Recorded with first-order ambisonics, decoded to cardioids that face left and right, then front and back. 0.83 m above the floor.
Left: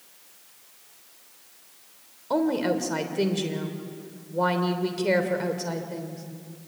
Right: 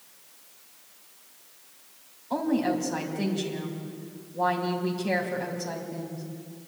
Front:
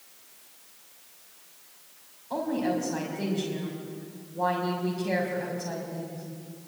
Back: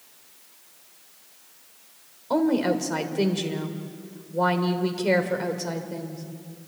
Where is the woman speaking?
140° left, 3 m.